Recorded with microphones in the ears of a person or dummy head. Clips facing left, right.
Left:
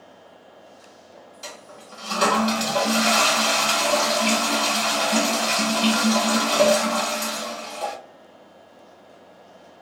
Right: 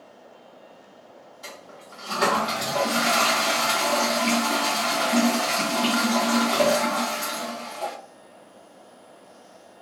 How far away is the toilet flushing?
About 1.4 m.